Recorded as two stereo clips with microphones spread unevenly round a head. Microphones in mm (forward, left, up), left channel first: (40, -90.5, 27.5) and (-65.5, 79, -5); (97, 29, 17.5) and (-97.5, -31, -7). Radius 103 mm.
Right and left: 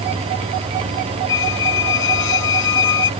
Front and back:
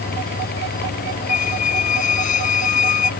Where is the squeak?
35° right.